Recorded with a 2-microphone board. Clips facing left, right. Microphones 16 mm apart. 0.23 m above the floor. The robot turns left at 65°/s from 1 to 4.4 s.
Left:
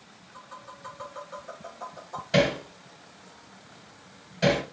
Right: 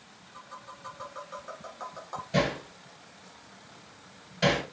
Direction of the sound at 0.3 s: 15° left (ahead or behind).